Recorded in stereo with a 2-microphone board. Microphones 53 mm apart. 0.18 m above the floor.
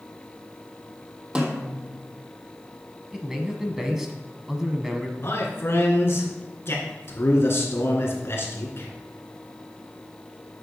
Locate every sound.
1.4 s a snare drum: 20° right (ahead or behind), 1.5 m
3.1 s a man speaking: 10° right (ahead or behind), 1.2 m
5.2 s a man speaking: 45° left (ahead or behind), 2.5 m